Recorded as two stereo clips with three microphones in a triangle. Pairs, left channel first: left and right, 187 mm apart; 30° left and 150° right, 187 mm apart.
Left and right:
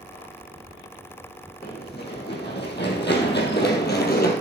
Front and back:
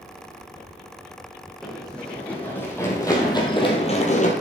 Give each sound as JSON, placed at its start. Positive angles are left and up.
{"t": 1.6, "sound": "running footsteps", "azimuth_deg": 120, "distance_m": 5.0}